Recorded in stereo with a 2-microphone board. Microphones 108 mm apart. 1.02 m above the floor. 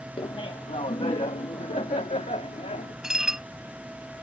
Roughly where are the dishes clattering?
Centre.